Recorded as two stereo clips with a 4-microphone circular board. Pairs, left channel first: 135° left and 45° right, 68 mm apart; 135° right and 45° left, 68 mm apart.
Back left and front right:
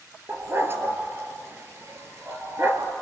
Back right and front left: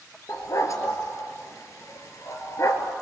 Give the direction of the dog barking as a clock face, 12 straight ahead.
3 o'clock.